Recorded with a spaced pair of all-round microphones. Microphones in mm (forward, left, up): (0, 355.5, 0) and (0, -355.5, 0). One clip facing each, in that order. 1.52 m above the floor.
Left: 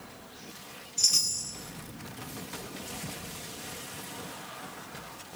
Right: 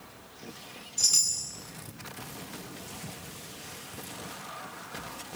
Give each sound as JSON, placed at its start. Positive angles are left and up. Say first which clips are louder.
{"t": 1.0, "sound": "a chime", "louder": "left 2 dB", "side_deg": 5, "distance_m": 8.0}